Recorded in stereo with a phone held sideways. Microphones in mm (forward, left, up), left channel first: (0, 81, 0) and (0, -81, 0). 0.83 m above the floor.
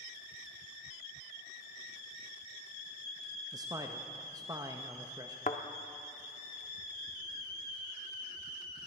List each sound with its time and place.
3.5 s a man speaking: 25° right (ahead or behind), 0.6 m
5.5 s a thud: 55° left (ahead or behind), 0.7 m